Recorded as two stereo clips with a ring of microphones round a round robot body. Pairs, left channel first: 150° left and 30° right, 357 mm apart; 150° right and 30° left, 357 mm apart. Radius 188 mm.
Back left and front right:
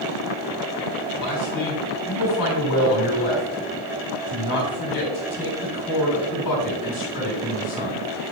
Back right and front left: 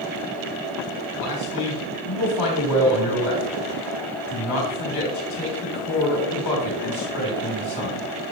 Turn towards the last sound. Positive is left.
turn(degrees=-175)